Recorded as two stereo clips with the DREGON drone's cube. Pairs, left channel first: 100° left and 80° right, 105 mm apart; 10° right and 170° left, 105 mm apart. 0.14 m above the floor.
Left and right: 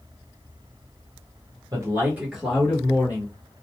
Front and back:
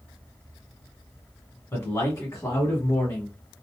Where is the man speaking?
60° right, 1.3 m; by 3.4 s 50° left, 1.7 m.